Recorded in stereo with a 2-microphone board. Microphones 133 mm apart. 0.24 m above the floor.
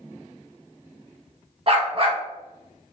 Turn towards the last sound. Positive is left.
turn(degrees=-45)  # may be behind; listen again after turning